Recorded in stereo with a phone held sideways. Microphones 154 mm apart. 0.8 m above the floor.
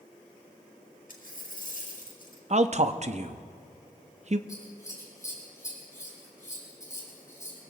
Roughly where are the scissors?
Left.